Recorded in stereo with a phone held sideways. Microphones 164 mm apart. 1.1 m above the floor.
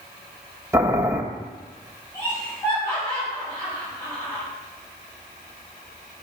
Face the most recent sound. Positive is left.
turn(degrees=20)  # may be behind; listen again after turning